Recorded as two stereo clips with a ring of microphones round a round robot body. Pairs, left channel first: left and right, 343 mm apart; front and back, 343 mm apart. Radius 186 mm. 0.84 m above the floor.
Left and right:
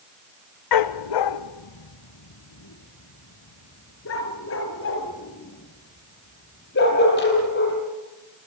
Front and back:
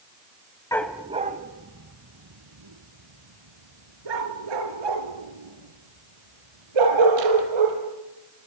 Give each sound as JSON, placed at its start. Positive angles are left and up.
{"t": 0.7, "sound": "a dog barking", "azimuth_deg": 80, "distance_m": 1.0}